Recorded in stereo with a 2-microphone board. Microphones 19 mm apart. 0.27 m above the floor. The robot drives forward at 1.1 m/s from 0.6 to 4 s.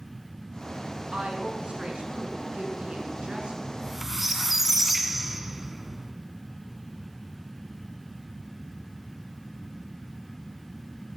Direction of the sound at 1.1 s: 60° right (ahead or behind).